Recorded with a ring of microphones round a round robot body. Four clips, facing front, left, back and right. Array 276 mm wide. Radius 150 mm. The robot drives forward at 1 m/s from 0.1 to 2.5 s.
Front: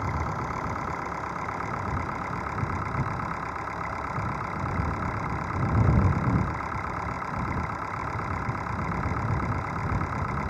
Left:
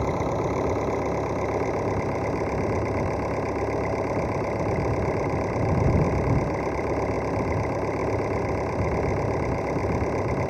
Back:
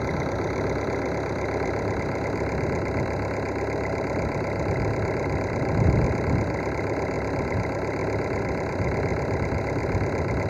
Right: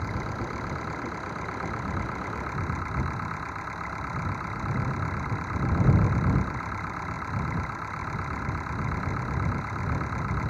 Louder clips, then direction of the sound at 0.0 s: Left 9 dB, back 4 dB; 125° left.